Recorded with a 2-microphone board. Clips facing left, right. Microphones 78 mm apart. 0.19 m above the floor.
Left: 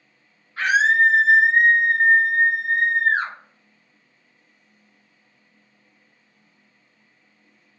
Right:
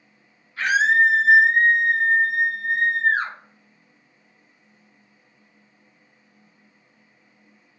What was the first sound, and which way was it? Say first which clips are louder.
A scream: left 1 dB; 35° left (ahead or behind).